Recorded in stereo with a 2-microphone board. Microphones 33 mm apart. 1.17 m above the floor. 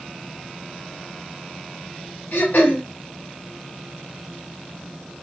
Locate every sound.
2.3 s throat clearing: 70° left (ahead or behind), 1.7 m